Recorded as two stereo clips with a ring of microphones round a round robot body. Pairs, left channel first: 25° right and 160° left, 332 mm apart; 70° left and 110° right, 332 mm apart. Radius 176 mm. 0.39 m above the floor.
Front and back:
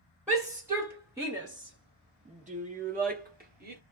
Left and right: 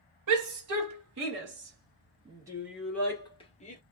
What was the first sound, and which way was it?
A shout, 115° right.